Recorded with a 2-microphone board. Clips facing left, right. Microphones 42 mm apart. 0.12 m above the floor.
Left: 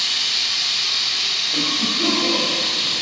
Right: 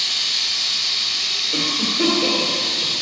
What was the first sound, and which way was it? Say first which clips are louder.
Running water: left 1 dB; 65° left (ahead or behind).